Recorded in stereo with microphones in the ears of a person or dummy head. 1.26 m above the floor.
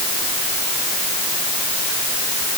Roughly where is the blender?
I don't hear a blender.